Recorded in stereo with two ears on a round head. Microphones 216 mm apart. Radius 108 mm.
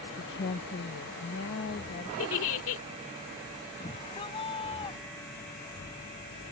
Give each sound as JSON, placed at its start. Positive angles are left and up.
{"t": 0.2, "sound": "a woman speaking", "side_deg": 55}
{"t": 2.2, "sound": "a giggle", "side_deg": 65}
{"t": 3.8, "sound": "a shout", "side_deg": 25}